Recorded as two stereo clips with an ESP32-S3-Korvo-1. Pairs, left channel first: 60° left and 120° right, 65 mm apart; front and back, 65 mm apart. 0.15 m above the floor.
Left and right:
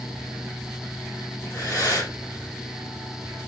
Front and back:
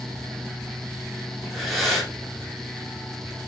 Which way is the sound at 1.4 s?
90° left.